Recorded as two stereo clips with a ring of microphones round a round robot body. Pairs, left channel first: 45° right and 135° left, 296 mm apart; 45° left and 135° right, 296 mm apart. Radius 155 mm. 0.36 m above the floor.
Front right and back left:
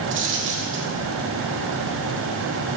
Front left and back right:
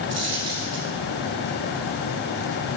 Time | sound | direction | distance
0.1 | a dropped coin | 175° right | 2.5 m